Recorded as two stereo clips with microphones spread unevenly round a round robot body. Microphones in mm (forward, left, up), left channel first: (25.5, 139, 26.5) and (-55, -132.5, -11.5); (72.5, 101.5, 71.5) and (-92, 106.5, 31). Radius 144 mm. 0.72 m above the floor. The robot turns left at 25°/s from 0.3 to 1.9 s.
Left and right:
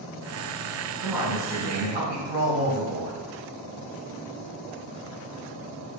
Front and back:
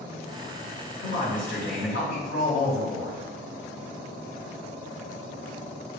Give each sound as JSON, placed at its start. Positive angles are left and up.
{"t": 1.0, "sound": "a man speaking", "azimuth_deg": -20, "distance_m": 3.0}